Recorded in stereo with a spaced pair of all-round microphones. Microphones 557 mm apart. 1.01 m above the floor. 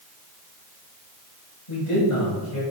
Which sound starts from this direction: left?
A man speaking, at 1.7 s.